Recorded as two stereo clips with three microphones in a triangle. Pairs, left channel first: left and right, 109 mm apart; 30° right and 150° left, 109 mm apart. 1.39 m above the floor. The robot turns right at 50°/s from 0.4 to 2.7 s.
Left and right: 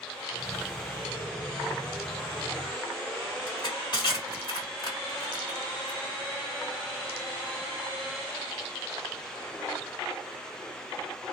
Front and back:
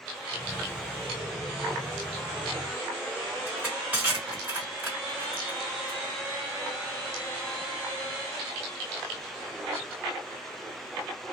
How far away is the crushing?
About 1.5 m.